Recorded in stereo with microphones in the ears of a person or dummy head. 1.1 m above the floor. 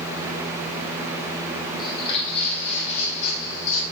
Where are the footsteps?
25° left (ahead or behind), 2.5 m; by 3.8 s 50° left (ahead or behind), 2.5 m.